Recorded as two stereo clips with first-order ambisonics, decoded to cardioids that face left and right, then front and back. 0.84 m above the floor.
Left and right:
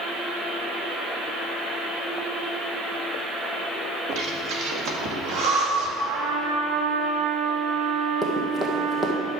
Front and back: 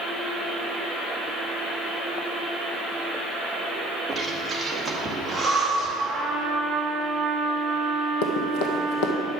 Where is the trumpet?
90° right, 1.4 m.